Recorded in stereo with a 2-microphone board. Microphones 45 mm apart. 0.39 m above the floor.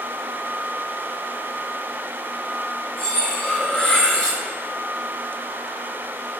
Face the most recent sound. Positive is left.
turn(degrees=20)  # may be behind; listen again after turning